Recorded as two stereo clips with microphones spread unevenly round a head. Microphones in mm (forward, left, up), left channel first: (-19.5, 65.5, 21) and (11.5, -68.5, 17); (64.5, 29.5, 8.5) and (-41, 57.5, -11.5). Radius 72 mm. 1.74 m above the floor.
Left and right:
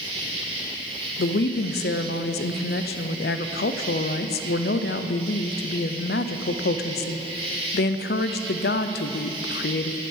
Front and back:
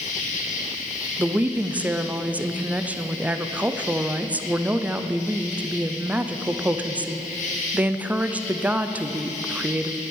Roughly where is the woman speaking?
Left.